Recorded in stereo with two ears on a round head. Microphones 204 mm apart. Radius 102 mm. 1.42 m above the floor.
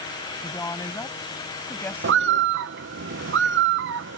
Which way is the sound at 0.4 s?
15° left (ahead or behind).